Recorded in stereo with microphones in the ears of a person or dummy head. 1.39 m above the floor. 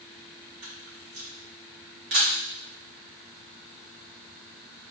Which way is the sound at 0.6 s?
60° right (ahead or behind).